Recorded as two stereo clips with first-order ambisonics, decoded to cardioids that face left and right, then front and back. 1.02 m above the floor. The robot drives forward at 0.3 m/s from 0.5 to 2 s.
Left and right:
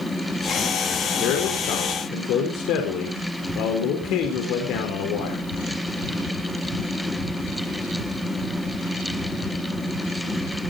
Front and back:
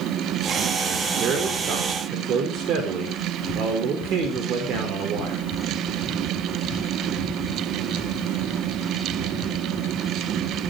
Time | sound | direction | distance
1.2 | a man speaking | 125° left | 4 m